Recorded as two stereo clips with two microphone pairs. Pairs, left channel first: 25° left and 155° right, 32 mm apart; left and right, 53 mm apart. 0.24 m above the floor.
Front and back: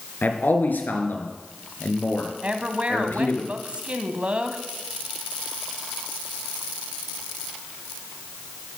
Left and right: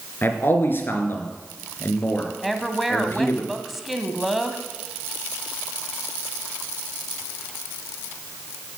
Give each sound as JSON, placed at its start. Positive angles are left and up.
{"t": 0.2, "sound": "a man speaking", "azimuth_deg": 45, "distance_m": 3.0}
{"t": 2.4, "sound": "a woman speaking", "azimuth_deg": 180, "distance_m": 1.3}